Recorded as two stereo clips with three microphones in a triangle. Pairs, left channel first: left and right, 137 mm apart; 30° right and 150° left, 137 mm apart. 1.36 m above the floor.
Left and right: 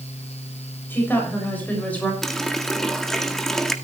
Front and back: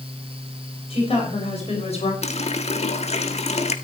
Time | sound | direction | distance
0.9 | a woman speaking | 15° left | 7.5 m
2.2 | a running tap | 5° left | 1.6 m